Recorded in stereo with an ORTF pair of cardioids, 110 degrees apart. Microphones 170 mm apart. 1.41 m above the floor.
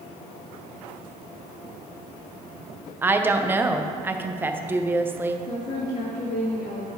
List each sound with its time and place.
3.0 s a woman speaking: 10° right, 0.7 m
5.5 s a woman speaking: 35° left, 2 m